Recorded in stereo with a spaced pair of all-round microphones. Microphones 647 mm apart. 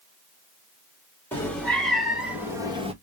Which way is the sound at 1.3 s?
5° left (ahead or behind).